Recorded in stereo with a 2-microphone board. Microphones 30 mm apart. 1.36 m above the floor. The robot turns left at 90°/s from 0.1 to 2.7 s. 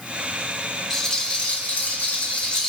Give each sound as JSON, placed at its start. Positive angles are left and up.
{"t": 0.9, "sound": "a rattle", "azimuth_deg": 180, "distance_m": 4.0}